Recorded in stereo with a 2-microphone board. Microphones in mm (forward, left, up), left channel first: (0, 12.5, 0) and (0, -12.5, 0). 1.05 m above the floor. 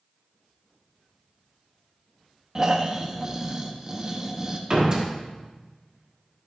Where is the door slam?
35° right (ahead or behind), 1.5 m.